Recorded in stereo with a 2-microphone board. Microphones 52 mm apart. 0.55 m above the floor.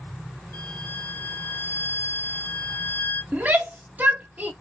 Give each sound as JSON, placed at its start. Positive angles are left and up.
{"t": 0.5, "sound": "a violin", "side_deg": 60, "distance_m": 1.3}
{"t": 3.3, "sound": "a shout", "side_deg": -35, "distance_m": 0.7}